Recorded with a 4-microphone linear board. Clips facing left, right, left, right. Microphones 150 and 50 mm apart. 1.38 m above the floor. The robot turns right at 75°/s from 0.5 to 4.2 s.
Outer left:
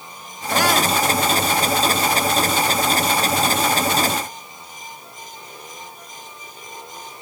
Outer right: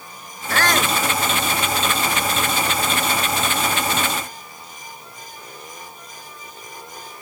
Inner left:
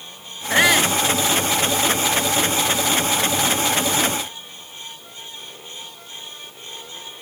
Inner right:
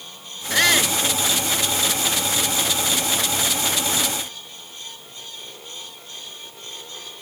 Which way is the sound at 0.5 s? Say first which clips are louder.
Outer left 2 dB, inner left 3 dB; 160° left.